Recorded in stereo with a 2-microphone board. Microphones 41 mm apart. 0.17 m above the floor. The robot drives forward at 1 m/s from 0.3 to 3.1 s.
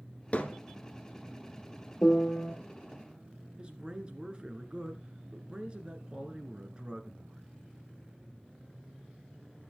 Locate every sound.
0.3 s hammering: 40° left (ahead or behind), 1.3 m; by 0.6 s 35° left (ahead or behind), 1.5 m
2.0 s a piano: 30° left (ahead or behind), 1.9 m; by 2.5 s 25° left (ahead or behind), 2.5 m
3.6 s a man speaking: 25° right (ahead or behind), 1.9 m